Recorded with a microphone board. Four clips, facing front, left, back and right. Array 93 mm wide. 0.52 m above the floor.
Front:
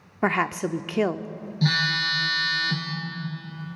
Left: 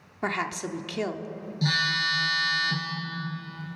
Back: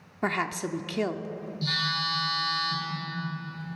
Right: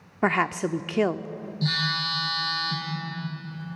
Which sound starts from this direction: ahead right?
A woman speaking, at 0.2 s.